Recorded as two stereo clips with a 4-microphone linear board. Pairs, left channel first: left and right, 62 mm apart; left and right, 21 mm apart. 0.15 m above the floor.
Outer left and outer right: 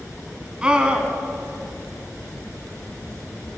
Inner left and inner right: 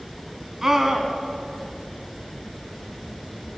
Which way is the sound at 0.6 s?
15° right (ahead or behind).